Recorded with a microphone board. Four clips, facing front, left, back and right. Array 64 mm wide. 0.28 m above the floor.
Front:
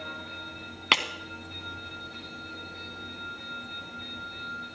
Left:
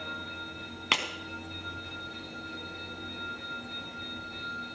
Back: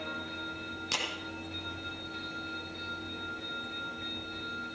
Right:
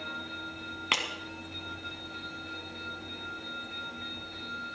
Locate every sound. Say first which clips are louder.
0.9 s a clap: left 1 dB, front 12 dB; 5° left, 1.6 m